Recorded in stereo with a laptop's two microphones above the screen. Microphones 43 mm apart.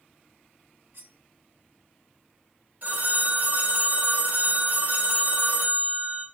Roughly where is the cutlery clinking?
Right.